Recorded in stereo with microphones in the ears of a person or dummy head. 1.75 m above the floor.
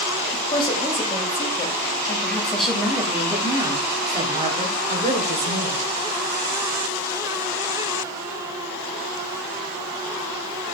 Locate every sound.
0.3 s a woman speaking: 30° left (ahead or behind), 2.5 m; by 5.8 s 60° right (ahead or behind), 1.8 m